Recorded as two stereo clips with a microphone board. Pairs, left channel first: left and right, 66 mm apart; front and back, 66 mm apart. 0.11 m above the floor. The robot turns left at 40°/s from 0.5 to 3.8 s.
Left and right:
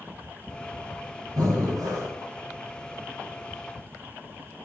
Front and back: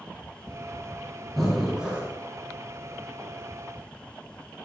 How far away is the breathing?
About 4 m.